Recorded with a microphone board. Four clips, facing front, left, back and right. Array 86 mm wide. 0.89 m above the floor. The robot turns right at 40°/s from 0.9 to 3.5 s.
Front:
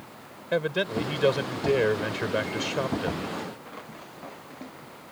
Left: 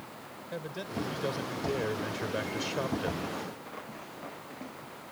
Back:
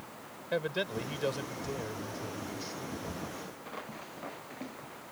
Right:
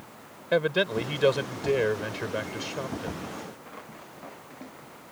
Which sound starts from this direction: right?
A man speaking, at 0.5 s.